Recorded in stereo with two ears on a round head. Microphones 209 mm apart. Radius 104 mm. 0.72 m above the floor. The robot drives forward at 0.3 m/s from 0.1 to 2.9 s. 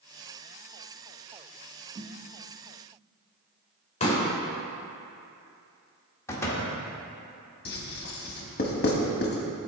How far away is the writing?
About 1.2 m.